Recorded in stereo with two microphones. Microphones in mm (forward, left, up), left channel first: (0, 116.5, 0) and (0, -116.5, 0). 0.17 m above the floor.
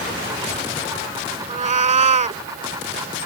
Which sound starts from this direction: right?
A cat meowing, at 1.5 s.